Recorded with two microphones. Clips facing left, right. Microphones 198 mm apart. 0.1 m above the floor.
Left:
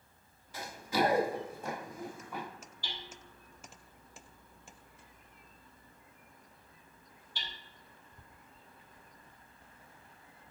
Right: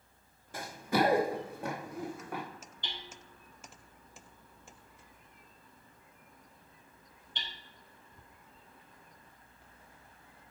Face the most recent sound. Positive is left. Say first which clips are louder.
# even
turn(degrees=-20)  # may be behind; listen again after turning